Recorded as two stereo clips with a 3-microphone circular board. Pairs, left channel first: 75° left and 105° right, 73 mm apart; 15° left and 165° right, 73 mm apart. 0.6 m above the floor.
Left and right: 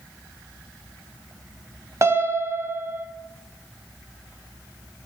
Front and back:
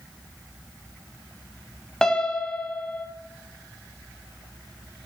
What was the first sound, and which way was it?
A piano, 65° right.